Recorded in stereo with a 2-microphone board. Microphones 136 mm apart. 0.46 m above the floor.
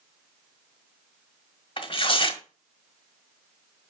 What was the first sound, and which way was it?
Tearing paper, 40° left (ahead or behind).